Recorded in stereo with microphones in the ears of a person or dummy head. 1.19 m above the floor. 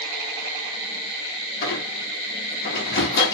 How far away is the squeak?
About 1.2 m.